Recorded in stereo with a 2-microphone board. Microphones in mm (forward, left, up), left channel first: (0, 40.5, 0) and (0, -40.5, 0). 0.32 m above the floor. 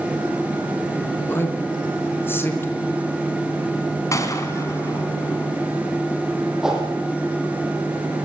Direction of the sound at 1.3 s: 25° left (ahead or behind).